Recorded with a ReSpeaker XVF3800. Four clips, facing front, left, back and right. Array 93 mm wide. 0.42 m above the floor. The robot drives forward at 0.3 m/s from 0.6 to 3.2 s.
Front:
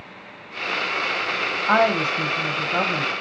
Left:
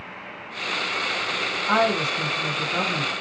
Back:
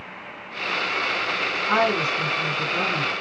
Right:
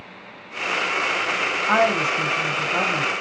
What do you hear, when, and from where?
1.7 s a woman speaking: 20° right, 3 m; by 3.1 s 25° right, 2.5 m